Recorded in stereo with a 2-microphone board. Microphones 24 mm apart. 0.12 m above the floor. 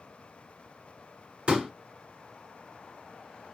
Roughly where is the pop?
Right.